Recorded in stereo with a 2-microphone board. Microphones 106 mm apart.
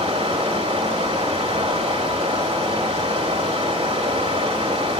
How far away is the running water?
About 1.7 m.